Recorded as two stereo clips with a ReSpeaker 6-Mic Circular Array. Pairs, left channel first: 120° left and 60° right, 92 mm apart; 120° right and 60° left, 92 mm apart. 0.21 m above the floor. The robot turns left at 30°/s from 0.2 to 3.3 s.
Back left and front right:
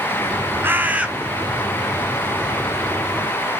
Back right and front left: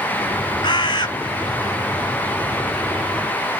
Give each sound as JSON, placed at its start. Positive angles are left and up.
{"t": 0.6, "sound": "a bird", "azimuth_deg": -120, "distance_m": 1.0}